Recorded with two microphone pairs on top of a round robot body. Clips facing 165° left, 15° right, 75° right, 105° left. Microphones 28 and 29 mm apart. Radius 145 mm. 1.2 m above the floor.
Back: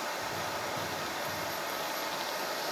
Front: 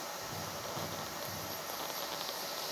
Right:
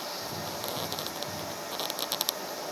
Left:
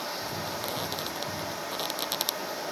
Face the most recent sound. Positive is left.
turn(degrees=150)